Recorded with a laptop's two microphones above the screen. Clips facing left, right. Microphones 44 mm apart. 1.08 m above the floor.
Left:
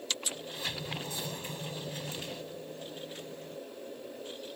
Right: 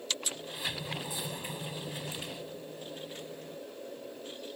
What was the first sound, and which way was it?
A sliding door, 10° right (ahead or behind).